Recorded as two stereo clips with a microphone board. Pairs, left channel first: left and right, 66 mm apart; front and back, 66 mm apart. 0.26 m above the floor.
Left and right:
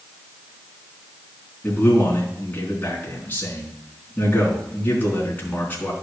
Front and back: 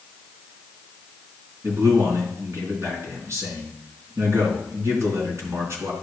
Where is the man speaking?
145° left, 3.5 m.